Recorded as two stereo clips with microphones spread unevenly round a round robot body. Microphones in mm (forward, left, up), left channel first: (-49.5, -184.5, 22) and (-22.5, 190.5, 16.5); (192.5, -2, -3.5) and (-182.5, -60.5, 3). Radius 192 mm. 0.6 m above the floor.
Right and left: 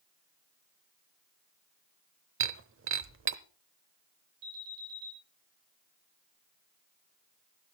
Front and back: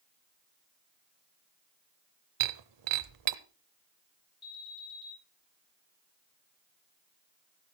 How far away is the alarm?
About 8.5 m.